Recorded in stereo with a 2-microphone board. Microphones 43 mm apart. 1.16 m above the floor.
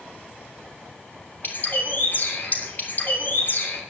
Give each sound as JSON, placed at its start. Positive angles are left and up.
{"t": 1.4, "sound": "a bird", "side_deg": 45, "distance_m": 3.0}